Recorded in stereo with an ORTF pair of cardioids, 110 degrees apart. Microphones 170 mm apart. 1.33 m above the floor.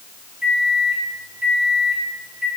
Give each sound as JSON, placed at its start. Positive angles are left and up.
{"t": 0.4, "sound": "a microwave", "azimuth_deg": -10, "distance_m": 1.0}